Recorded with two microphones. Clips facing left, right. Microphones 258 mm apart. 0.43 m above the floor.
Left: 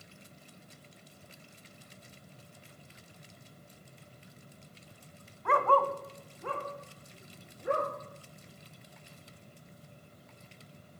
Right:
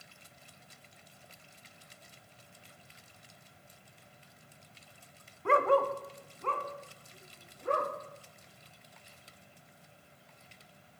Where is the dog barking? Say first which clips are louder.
Right 2 dB; 35° right (ahead or behind), 0.9 m; by 7.9 s 20° left (ahead or behind), 3.5 m.